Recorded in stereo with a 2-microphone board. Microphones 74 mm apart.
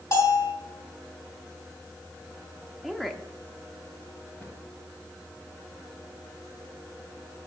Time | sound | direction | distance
0.1 | a bell | 60° left (ahead or behind) | 4 m
2.8 | a woman speaking | centre (ahead or behind) | 0.8 m
4.4 | a cupboard door | 25° left (ahead or behind) | 1.7 m